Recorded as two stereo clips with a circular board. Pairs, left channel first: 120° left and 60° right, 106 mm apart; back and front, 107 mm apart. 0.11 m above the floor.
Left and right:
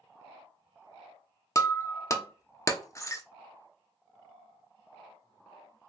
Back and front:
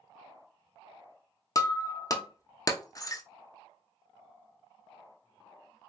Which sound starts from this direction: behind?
Breaking glass, at 1.6 s.